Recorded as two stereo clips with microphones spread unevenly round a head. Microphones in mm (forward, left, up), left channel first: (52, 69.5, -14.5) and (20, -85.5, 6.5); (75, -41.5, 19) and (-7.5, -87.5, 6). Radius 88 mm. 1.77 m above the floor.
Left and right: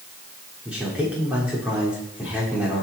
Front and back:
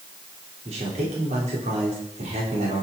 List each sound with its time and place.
0.7 s a man speaking: 175° left, 5 m